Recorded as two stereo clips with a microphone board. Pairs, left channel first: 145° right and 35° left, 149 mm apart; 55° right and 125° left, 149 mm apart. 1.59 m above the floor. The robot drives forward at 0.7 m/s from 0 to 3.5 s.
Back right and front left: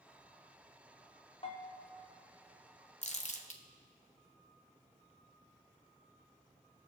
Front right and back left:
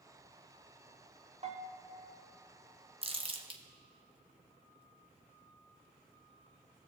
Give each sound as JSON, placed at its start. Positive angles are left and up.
{"t": 1.4, "sound": "a bell", "azimuth_deg": 165, "distance_m": 0.9}
{"t": 3.0, "sound": "crumpling", "azimuth_deg": 175, "distance_m": 0.5}